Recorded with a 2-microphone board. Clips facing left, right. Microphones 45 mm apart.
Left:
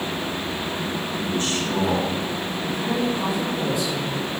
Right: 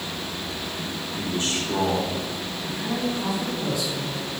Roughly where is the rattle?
No rattle in this recording.